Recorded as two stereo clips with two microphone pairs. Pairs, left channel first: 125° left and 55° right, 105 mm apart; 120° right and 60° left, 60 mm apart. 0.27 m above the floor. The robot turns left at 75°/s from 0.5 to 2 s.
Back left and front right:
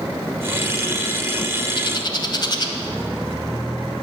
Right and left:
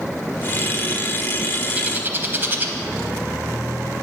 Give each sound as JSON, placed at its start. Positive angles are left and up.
{"t": 1.8, "sound": "a bird", "azimuth_deg": 120, "distance_m": 0.8}